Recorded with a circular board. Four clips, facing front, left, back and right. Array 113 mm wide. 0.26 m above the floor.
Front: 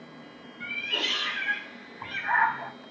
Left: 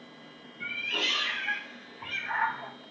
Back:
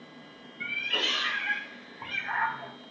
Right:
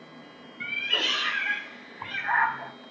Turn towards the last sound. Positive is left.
turn(degrees=-20)